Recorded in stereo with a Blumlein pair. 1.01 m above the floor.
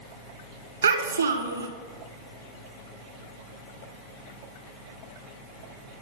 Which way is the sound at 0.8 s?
70° right.